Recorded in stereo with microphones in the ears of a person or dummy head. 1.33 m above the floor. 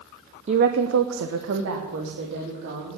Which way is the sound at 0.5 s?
40° right (ahead or behind).